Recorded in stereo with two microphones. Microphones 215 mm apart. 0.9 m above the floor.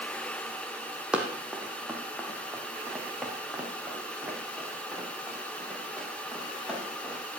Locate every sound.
1.1 s running footsteps: 5° right (ahead or behind), 2 m; by 7.2 s centre (ahead or behind), 7 m